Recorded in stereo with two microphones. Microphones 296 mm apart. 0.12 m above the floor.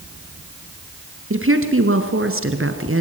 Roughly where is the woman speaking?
Right.